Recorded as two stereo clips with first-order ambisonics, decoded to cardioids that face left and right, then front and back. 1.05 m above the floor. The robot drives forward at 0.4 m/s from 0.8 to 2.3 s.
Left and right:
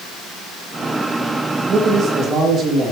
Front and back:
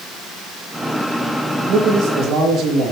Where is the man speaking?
140° right, 1.9 m; by 2.9 s 145° right, 2 m.